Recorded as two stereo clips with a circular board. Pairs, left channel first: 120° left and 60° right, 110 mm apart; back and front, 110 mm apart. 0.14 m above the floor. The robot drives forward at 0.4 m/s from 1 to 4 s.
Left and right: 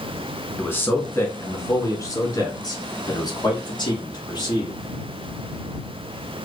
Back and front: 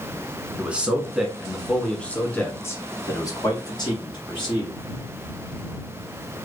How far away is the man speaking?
About 1.1 m.